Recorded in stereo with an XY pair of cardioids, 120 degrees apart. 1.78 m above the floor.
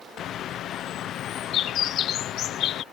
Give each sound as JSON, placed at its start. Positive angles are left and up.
{"t": 0.2, "sound": "a bird", "azimuth_deg": 60}